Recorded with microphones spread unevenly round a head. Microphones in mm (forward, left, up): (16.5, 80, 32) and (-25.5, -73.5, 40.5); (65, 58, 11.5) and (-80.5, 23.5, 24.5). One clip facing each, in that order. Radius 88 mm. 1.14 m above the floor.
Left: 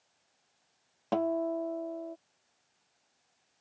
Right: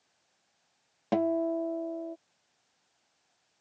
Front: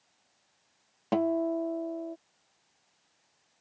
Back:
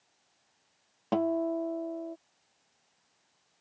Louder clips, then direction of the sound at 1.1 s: Right 2 dB, front 1 dB; 45° right.